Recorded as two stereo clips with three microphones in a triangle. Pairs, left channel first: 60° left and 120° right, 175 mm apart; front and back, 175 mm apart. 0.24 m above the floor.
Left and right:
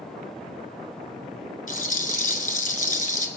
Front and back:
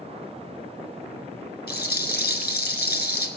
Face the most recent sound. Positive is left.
turn(degrees=20)